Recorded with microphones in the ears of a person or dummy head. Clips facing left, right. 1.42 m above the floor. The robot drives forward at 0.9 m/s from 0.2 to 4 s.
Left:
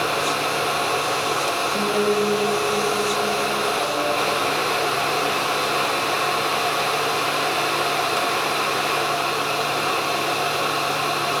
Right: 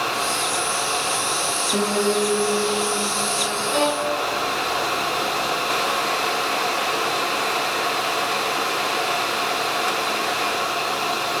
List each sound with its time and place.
1.7 s a piano: 65° right (ahead or behind), 4 m; by 3.6 s 45° right (ahead or behind), 5 m
3.7 s a violin: 75° right (ahead or behind), 1.7 m; by 4.2 s 80° right, 1.7 m